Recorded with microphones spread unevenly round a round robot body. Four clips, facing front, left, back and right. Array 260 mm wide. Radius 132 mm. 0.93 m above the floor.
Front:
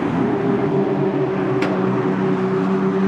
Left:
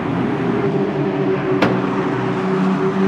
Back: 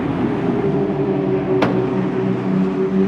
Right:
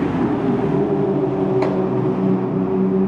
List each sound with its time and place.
1.6 s a microwave: 125° left, 1.1 m